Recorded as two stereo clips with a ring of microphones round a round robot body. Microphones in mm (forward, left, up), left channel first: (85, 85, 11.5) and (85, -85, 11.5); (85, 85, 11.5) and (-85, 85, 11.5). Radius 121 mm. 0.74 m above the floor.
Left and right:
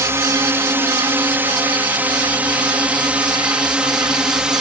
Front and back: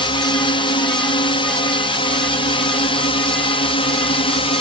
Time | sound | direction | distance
0.0 | a drone | 30° right | ?